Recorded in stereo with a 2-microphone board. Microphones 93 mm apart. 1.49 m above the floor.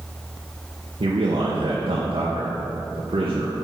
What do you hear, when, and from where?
1.0 s a man speaking: 80° right, 1.0 m